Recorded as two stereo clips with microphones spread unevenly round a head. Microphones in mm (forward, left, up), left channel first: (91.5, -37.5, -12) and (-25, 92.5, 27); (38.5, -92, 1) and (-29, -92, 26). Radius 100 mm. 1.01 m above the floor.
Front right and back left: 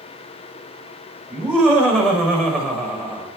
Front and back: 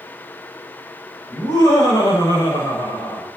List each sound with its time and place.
1.3 s laughter: 45° left, 4.5 m; by 3.3 s 35° left, 5.5 m